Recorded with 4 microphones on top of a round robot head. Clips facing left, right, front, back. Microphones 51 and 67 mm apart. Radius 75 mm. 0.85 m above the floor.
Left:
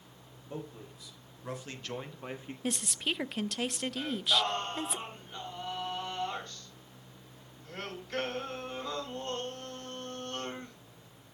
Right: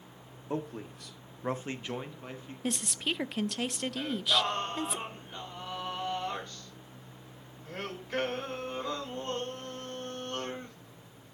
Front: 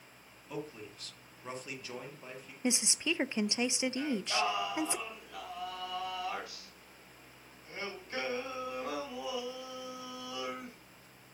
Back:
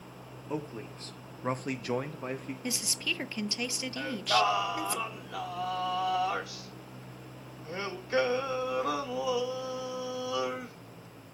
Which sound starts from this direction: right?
A man speaking, at 0.5 s.